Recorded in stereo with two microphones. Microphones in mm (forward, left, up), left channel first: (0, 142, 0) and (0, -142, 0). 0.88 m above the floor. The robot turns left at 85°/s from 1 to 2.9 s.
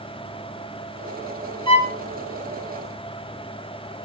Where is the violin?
15° left (ahead or behind), 1.1 m; by 1.9 s 30° left (ahead or behind), 1.1 m.